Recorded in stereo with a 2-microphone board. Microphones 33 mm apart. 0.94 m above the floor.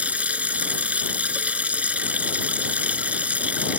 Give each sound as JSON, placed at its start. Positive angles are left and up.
{"t": 0.0, "sound": "running water", "side_deg": -45}